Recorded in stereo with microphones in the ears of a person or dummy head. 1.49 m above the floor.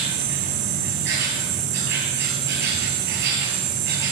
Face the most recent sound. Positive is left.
turn(degrees=-60)  # may be behind; listen again after turning